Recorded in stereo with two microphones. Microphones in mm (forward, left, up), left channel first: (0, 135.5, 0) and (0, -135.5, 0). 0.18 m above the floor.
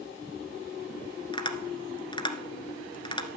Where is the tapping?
15° left (ahead or behind), 1.6 m.